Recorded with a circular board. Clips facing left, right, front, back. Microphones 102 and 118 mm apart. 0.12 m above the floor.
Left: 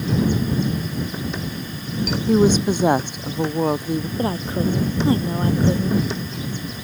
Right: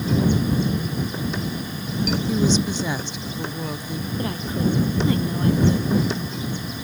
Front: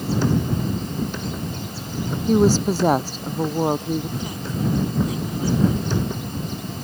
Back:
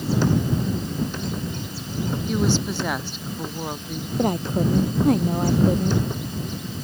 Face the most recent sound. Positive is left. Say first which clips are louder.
# right 1 dB, back 5 dB
turn(degrees=145)